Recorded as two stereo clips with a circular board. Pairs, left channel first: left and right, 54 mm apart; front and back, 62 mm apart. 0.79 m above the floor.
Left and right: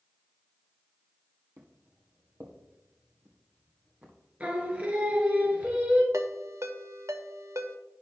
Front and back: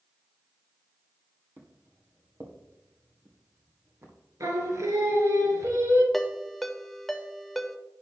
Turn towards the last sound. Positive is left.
turn(degrees=-85)